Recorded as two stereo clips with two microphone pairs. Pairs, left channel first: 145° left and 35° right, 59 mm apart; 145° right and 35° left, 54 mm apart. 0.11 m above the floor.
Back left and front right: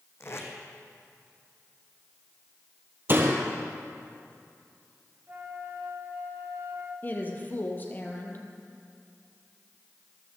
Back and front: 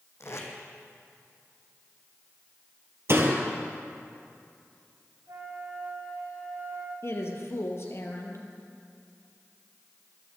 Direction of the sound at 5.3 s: 25° left.